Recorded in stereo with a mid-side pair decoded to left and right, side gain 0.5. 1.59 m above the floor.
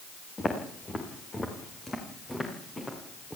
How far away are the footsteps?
About 6.5 m.